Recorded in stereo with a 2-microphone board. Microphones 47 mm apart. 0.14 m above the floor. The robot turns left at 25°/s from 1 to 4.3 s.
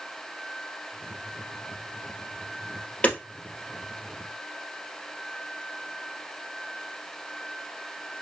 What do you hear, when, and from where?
3.0 s hammering: 30° left (ahead or behind), 1.9 m